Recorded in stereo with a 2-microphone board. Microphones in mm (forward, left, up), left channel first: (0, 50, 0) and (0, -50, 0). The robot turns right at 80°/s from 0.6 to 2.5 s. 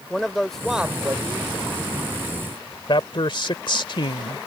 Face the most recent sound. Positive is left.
turn(degrees=55)  # may be behind; listen again after turning